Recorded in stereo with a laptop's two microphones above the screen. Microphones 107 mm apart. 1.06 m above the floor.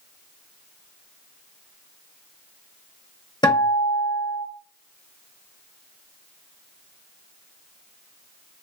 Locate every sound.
3.4 s a guitar: 40° left (ahead or behind), 0.7 m